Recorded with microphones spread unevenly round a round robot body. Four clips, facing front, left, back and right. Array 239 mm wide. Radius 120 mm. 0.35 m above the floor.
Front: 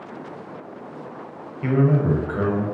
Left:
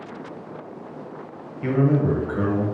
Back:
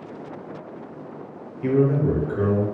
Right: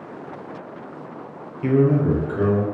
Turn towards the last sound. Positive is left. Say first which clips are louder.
# right 2 dB, even
turn(degrees=25)